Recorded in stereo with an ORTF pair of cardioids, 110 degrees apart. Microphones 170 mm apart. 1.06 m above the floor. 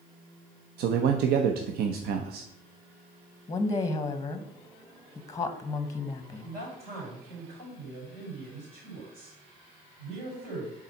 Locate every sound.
0.8 s a man speaking: 70° right, 0.7 m
3.5 s a woman speaking: 20° left, 0.8 m
6.4 s a man speaking: 65° right, 4 m